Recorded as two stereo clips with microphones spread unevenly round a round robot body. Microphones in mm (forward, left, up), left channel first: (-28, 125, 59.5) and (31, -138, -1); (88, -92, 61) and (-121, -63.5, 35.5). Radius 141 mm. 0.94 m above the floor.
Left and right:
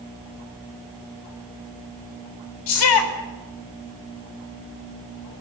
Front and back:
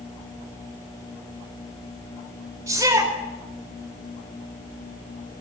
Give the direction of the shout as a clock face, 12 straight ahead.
9 o'clock.